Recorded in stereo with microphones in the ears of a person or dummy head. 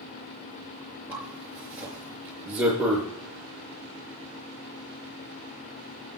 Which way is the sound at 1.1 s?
10° right (ahead or behind).